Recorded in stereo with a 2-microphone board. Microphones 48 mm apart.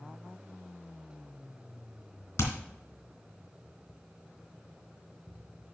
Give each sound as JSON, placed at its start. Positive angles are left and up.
{"t": 2.4, "sound": "hammering", "side_deg": 65, "distance_m": 2.5}